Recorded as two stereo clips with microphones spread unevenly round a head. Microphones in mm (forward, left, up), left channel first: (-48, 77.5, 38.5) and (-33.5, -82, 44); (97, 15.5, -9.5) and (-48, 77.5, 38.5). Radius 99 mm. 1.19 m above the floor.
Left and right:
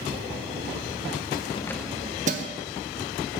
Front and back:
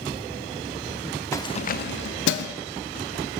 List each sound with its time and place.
1.3 s keys jangling: 55° left, 0.6 m; by 2.5 s 40° right, 0.9 m